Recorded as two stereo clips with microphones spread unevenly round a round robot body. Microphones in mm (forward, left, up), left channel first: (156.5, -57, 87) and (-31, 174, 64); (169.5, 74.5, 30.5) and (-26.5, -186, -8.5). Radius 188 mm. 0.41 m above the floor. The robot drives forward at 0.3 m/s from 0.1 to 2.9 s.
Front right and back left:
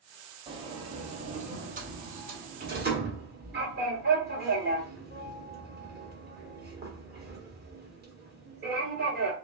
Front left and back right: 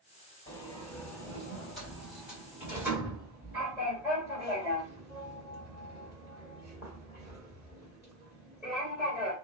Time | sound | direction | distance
0.5 | a sliding door | 130° left | 1.3 m